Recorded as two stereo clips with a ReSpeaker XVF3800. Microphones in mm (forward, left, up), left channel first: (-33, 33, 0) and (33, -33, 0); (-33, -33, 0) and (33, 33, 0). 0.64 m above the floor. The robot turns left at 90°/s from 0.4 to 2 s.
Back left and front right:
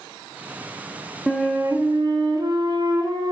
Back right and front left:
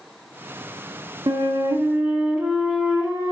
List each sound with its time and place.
1.3 s a flute: 45° left, 1.4 m; by 3.3 s 20° right, 1.4 m